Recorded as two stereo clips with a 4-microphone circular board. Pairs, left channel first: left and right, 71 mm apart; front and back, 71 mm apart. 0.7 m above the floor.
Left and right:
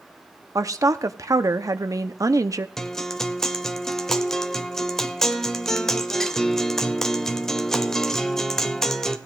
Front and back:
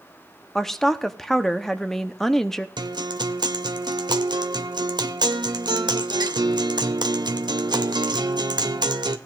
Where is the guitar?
175° left, 0.8 m.